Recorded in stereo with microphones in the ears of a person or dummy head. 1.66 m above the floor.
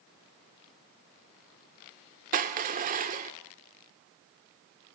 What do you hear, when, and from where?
2.3 s crushing: 45° right (ahead or behind), 1.6 m